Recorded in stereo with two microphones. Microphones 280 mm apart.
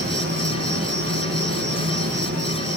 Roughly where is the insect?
Right.